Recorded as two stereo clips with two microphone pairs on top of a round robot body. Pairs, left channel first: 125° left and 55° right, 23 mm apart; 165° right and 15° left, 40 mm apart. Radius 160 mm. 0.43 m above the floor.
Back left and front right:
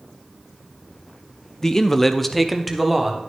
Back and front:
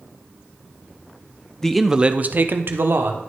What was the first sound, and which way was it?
A man speaking, 170° right.